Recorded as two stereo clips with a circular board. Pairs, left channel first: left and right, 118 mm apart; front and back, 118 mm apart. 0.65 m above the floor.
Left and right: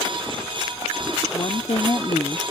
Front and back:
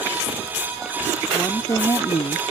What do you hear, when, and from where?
1.3 s a woman speaking: 65° left; by 2.4 s 25° left